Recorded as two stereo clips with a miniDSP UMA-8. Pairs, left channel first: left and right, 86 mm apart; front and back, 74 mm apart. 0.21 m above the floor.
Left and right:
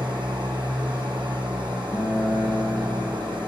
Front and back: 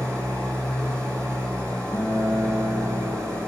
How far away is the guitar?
About 1.7 m.